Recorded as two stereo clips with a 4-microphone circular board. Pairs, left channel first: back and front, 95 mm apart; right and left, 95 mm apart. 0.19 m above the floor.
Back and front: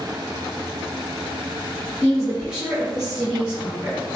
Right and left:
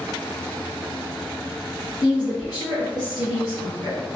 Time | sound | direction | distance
2.0 | a woman speaking | 80° right | 1.4 m